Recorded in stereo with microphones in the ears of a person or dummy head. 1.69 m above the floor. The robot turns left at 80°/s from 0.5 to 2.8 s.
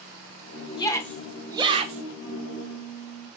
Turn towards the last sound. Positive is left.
turn(degrees=20)